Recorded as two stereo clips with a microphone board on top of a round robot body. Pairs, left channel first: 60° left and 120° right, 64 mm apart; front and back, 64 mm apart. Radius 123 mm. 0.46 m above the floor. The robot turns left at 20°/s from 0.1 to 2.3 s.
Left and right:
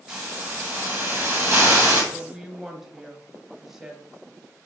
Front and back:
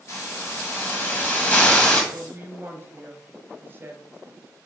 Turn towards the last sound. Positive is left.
turn(degrees=160)